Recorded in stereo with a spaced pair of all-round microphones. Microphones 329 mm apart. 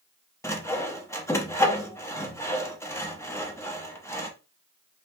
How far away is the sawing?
About 0.8 m.